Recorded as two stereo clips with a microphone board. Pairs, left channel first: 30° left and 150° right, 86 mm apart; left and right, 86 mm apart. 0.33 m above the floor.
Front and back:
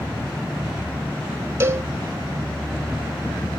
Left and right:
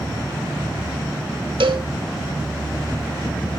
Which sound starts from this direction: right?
A cowbell, at 1.6 s.